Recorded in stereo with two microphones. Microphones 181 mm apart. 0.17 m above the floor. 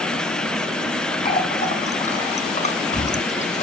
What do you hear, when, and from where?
1.2 s a running tap: 35° left (ahead or behind), 1.4 m